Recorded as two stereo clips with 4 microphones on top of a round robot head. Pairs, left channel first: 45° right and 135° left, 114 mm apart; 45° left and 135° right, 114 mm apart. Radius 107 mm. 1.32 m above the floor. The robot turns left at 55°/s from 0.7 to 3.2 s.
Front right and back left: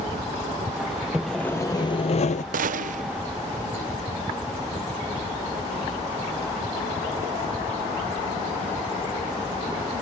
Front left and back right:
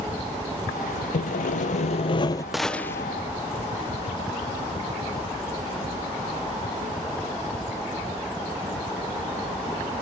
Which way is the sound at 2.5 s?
135° left.